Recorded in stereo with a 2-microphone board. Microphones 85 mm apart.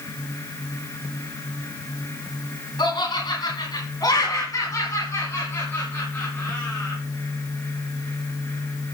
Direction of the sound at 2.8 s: 65° left (ahead or behind).